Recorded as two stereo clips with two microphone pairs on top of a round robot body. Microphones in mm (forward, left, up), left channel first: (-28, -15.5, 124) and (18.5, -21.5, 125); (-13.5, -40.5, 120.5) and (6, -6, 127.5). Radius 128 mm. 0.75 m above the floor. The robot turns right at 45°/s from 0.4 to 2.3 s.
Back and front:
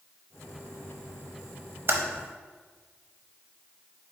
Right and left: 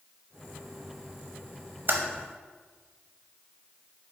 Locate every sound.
1.9 s typing on a keyboard: 25° left, 0.8 m; by 2.0 s 30° left, 0.8 m